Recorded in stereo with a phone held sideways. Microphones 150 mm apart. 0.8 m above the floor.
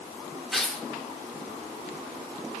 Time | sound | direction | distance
0.5 | tearing paper | centre (ahead or behind) | 2.5 m